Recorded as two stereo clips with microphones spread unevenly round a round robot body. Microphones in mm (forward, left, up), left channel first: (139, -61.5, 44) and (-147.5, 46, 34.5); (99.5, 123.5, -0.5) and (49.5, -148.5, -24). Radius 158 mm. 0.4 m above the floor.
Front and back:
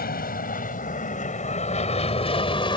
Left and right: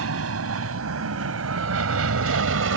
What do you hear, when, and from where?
0.0 s an aircraft: 80° right; by 2.8 s 90° right